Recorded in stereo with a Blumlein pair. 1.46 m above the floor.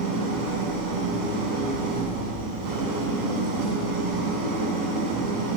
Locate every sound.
0.0 s an engine running: 45° right, 8.5 m